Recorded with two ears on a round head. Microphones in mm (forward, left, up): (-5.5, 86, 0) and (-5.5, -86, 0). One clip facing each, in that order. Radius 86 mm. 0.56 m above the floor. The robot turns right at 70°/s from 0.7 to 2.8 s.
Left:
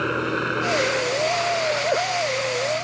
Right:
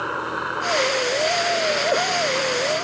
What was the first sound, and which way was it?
A helicopter, 150° left.